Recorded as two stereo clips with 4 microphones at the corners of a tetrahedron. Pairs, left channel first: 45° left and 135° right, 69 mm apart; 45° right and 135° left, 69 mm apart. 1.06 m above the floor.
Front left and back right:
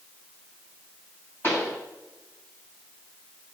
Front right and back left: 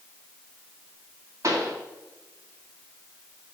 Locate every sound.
1.4 s a pop: 100° left, 2.5 m